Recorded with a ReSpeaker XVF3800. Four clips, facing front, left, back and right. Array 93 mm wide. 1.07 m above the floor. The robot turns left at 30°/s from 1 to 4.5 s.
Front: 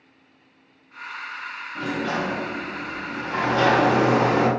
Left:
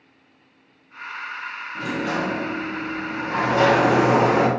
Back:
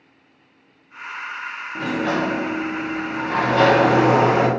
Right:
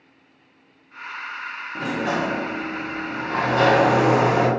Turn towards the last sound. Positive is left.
turn(degrees=140)